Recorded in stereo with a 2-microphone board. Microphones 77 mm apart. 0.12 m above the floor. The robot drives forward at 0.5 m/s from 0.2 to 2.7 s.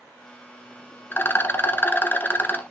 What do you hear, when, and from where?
1.1 s a rattle: 30° left (ahead or behind), 1.2 m; by 2.6 s 25° left (ahead or behind), 1.4 m